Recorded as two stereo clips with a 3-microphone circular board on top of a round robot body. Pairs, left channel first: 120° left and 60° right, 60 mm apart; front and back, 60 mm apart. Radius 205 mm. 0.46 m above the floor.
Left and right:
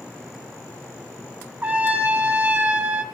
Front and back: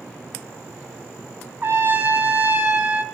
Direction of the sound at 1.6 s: 125° right.